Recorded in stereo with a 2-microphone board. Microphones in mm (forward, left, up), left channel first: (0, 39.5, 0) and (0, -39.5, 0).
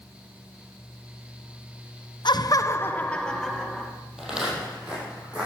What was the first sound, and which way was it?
Laughter, 65° left (ahead or behind).